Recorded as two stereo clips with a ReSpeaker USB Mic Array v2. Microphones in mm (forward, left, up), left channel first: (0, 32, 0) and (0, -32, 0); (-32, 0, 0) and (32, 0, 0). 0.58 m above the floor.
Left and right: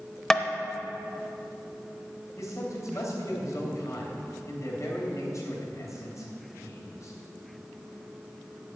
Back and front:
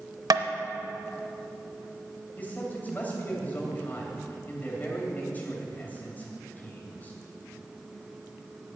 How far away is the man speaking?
About 3 m.